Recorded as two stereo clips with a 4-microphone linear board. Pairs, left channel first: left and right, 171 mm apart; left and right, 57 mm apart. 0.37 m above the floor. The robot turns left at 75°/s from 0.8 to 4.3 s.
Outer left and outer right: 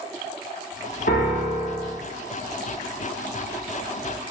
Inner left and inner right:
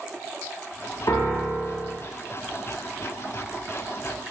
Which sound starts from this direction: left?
A piano, at 1.1 s.